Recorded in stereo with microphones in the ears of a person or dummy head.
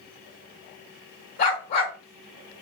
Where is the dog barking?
60° left (ahead or behind), 2 m.